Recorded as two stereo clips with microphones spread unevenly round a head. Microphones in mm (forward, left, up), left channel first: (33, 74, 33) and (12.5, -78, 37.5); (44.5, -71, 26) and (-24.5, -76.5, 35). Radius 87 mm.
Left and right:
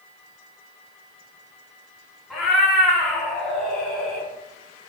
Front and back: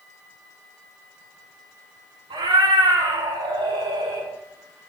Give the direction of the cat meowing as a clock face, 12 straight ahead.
6 o'clock.